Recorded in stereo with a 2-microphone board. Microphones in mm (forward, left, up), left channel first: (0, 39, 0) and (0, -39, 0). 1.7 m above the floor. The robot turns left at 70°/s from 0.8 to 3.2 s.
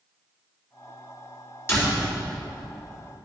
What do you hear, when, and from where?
1.7 s a door slam: 35° left (ahead or behind), 3.5 m; by 2.0 s 55° left (ahead or behind), 3.5 m